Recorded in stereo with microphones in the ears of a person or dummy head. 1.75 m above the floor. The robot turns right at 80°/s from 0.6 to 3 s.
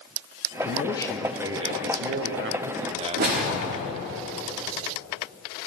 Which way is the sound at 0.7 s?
135° left.